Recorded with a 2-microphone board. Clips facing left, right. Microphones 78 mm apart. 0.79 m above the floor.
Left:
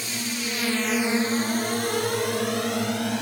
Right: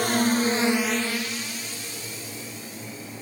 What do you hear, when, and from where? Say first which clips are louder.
0.0 s a drone: right 10 dB; 60° right (ahead or behind); by 3.2 s 75° left (ahead or behind)